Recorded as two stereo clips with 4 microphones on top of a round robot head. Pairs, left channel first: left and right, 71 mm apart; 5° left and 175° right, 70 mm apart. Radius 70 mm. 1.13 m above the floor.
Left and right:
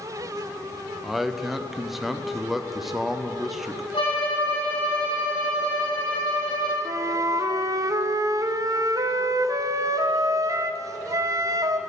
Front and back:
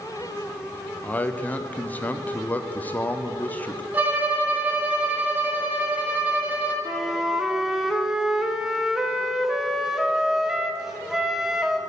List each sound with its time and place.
1.0 s a man speaking: 5° right, 0.6 m
3.9 s a violin: 125° left, 1.4 m
6.8 s a flute: 90° right, 0.7 m